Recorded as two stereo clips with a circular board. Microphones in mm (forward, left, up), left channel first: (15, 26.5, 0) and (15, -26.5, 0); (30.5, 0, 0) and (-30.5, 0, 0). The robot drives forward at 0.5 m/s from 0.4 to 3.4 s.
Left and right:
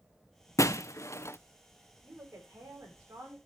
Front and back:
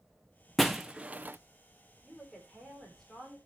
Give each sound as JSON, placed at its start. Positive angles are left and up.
{"t": 0.6, "sound": "breaking glass", "azimuth_deg": 85, "distance_m": 0.6}
{"t": 2.0, "sound": "a woman speaking", "azimuth_deg": -80, "distance_m": 9.5}